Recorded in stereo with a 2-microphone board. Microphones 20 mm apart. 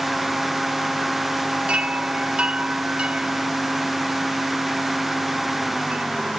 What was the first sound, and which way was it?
A chime, 70° right (ahead or behind).